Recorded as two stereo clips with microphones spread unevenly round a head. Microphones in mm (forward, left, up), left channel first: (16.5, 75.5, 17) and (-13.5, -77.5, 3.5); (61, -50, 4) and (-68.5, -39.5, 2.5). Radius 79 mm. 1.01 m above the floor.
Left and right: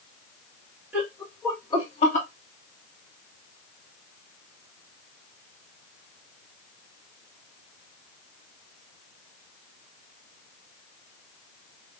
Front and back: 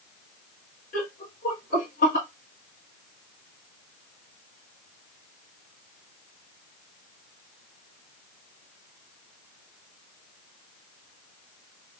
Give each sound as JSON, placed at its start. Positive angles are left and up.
{"t": 0.9, "sound": "laughter", "azimuth_deg": -20, "distance_m": 1.8}